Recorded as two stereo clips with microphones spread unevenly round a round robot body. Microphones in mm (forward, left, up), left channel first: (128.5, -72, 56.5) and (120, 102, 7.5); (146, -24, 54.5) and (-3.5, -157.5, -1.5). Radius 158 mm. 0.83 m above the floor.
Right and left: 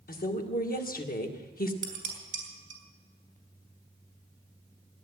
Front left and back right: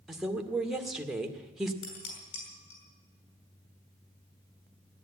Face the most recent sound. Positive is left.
turn(degrees=55)